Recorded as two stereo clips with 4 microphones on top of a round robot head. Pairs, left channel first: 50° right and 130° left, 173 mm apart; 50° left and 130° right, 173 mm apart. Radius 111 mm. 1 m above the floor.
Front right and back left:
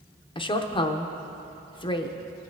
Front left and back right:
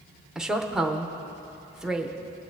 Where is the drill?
No drill in this recording.